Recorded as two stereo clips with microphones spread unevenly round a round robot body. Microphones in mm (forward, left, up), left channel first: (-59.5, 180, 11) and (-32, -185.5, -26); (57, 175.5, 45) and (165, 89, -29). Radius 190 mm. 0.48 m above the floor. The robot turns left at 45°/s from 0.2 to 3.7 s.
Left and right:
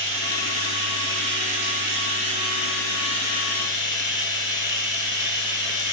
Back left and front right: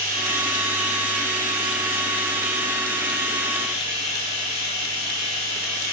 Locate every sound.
0.0 s running water: 30° right, 4.5 m; by 5.9 s 175° left, 4.5 m